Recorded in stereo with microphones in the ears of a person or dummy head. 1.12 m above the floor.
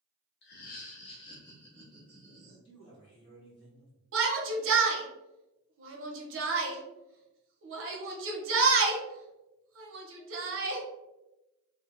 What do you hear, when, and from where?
0.4 s laughter: 55° left (ahead or behind), 0.8 m; by 2.5 s 15° right (ahead or behind), 0.9 m
2.6 s a man speaking: 30° left (ahead or behind), 1.7 m
4.1 s a shout: 60° right (ahead or behind), 0.9 m